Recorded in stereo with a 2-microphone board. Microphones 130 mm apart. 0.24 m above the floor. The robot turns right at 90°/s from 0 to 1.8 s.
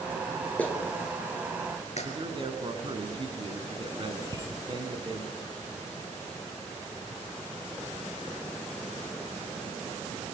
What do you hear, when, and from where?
0.6 s a clap: 10° left (ahead or behind), 3.5 m; by 2.1 s 55° left (ahead or behind), 3.5 m
2.0 s a man speaking: 40° right (ahead or behind), 3 m
4.2 s a bicycle bell: 30° right (ahead or behind), 5 m